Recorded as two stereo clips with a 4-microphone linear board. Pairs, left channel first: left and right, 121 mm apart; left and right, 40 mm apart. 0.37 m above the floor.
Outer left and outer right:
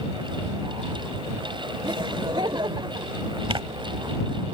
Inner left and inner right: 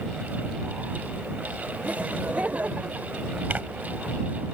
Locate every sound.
1.8 s laughter: 40° right (ahead or behind)
3.5 s tearing paper: 45° right (ahead or behind)